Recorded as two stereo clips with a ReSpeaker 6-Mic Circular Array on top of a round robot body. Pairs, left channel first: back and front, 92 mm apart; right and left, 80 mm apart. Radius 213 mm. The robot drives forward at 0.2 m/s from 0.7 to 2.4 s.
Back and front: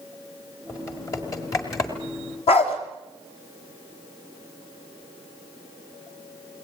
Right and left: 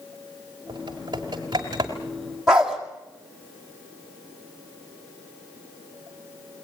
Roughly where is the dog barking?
Behind.